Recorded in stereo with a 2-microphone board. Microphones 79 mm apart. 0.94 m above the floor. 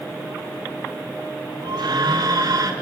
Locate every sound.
1.6 s a scream: 65° right (ahead or behind), 3.5 m; by 2.7 s 50° right (ahead or behind), 3 m